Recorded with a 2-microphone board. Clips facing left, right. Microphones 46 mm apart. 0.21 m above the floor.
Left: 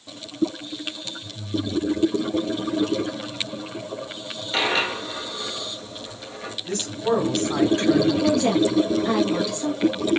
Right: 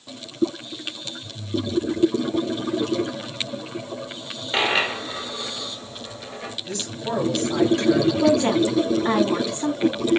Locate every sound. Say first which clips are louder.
4.5 s a dropped coin: right 1 dB; 20° right (ahead or behind), 1.3 m
6.7 s a man speaking: left 6 dB; 40° left (ahead or behind), 1.8 m
8.2 s a woman speaking: right 1 dB; 30° right (ahead or behind), 1.2 m